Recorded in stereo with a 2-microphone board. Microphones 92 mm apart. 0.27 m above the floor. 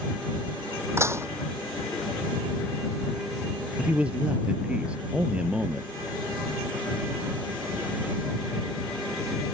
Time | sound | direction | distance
1.0 | dishes clattering | 30° right (ahead or behind) | ?
3.8 | a man speaking | 10° right (ahead or behind) | ?